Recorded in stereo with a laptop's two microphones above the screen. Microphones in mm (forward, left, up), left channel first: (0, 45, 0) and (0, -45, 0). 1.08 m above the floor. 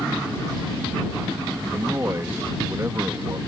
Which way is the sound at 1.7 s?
30° right (ahead or behind).